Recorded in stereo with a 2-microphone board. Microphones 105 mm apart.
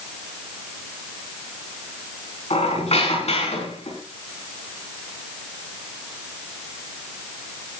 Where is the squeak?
75° left (ahead or behind), 5 m.